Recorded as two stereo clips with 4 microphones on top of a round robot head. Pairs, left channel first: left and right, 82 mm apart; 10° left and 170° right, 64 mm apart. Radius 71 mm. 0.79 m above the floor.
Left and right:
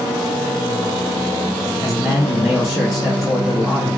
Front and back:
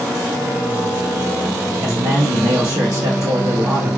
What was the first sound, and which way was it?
A man speaking, 175° left.